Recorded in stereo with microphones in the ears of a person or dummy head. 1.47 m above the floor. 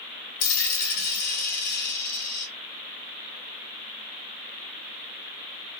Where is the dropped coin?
60° left (ahead or behind), 1.4 m.